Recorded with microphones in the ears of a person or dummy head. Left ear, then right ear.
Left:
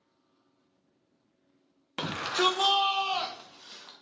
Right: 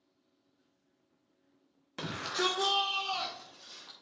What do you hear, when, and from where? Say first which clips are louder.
2.0 s a shout: left 5 dB; 25° left (ahead or behind), 0.8 m